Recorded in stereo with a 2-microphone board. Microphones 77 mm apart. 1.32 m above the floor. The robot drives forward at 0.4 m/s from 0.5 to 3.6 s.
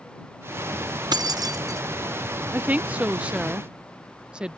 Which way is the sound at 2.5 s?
25° right (ahead or behind).